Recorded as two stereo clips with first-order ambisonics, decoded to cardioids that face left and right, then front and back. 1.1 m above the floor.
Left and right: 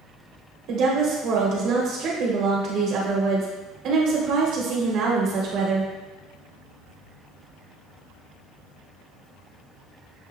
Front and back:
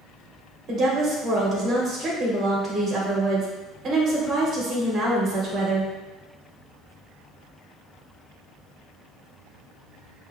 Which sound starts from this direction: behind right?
A woman speaking, at 0.7 s.